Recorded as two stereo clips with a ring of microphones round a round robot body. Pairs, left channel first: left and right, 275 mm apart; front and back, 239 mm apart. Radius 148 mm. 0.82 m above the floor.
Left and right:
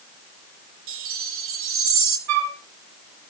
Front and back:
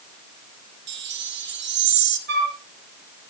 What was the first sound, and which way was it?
A chime, 135° right.